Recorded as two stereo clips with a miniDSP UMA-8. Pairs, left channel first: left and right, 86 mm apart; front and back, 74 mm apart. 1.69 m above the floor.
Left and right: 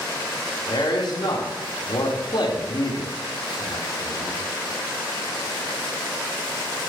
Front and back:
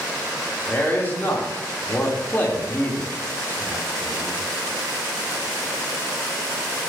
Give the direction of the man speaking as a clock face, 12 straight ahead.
10 o'clock.